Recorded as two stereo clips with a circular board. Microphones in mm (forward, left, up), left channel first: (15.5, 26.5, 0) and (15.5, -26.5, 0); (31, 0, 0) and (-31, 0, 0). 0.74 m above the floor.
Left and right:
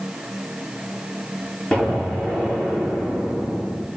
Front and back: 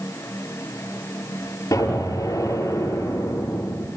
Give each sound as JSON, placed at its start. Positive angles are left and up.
{"t": 1.7, "sound": "an explosion", "azimuth_deg": 20, "distance_m": 8.5}